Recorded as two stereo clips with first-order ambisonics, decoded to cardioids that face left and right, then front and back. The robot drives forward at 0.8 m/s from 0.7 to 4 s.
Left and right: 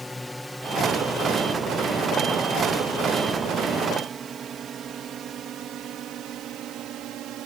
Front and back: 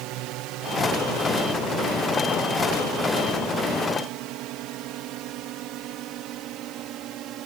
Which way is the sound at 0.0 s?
170° left.